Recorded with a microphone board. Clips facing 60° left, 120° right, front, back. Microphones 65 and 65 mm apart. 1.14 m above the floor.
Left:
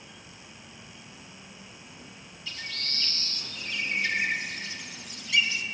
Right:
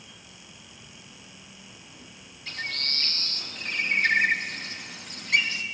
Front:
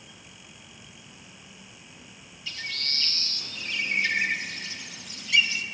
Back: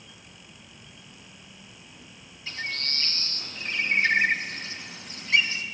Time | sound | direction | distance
2.5 | a bird | 135° right | 0.6 m